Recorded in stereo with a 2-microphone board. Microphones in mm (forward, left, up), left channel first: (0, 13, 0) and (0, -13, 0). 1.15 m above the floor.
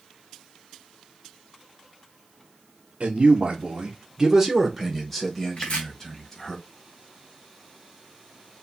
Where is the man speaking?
65° right (ahead or behind), 0.8 m; by 6.6 s 30° left (ahead or behind), 1.7 m.